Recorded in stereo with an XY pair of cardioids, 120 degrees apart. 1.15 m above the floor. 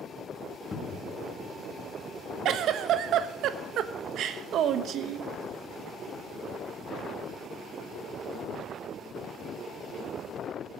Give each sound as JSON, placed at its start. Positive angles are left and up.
{"t": 0.7, "sound": "a cupboard door", "azimuth_deg": 30, "distance_m": 1.7}
{"t": 2.5, "sound": "a giggle", "azimuth_deg": -60, "distance_m": 1.0}